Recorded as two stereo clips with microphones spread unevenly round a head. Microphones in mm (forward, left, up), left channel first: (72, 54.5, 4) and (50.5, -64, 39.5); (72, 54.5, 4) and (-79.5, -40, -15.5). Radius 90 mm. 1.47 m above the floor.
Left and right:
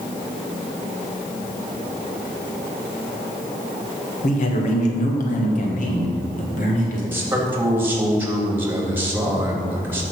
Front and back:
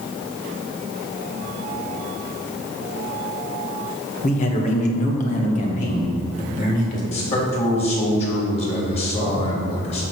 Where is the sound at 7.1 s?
25° right, 3.5 m.